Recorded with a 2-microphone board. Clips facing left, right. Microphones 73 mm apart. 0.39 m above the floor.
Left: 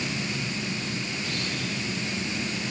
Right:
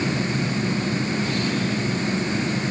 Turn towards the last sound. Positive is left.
No sound to turn to.